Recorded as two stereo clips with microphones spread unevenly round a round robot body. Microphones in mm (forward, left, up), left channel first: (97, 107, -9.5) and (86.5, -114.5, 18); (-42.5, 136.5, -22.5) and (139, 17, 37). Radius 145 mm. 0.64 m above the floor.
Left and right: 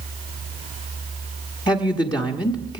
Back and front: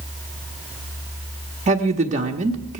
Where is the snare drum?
I don't hear a snare drum.